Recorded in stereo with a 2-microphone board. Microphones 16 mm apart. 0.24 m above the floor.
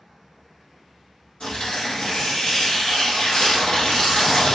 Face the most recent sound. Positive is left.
turn(degrees=65)  # may be behind; listen again after turning